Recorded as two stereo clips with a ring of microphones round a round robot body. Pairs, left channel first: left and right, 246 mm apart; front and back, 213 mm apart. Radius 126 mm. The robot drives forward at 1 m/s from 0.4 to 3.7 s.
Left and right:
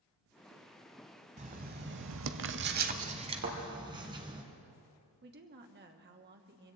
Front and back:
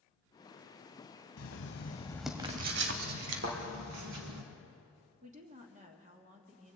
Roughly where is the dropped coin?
No dropped coin in this recording.